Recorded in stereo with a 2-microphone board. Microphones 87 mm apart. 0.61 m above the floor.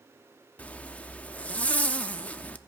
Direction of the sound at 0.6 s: 15° left (ahead or behind).